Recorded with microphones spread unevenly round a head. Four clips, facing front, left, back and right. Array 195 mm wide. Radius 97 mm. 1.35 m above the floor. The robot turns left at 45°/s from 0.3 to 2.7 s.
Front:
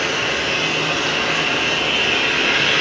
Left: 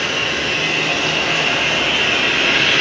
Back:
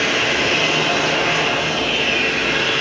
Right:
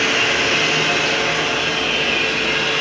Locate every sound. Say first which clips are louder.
0.0 s running water: right 3 dB, back 2 dB; 150° right, 0.8 m; by 2.8 s 100° left, 0.8 m